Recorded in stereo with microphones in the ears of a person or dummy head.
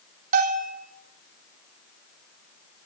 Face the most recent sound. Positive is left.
turn(degrees=-45)  # may be behind; listen again after turning